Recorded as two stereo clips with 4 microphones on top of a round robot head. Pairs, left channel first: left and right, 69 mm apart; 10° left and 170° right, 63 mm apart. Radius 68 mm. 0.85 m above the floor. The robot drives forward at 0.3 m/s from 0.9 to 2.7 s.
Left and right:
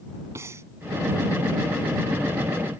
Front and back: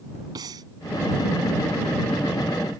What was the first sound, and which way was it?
Breathing, 145° right.